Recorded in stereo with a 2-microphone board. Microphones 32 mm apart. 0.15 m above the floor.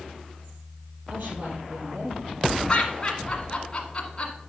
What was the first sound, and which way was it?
A woman speaking, 60° right (ahead or behind).